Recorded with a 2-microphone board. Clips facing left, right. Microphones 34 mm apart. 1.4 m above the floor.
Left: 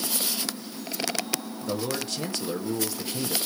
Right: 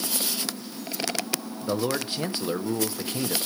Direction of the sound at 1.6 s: 25° right (ahead or behind).